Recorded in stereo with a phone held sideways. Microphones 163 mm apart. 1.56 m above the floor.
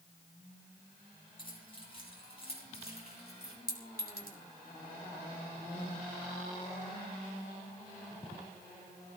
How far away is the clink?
About 3.5 m.